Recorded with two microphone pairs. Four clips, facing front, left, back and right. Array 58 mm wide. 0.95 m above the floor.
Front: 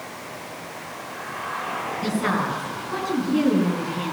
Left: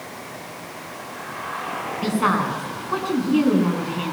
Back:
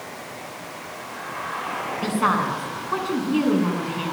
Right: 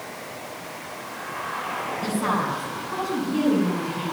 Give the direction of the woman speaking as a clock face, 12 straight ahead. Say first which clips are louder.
Left 5 dB, back 3 dB; 7 o'clock.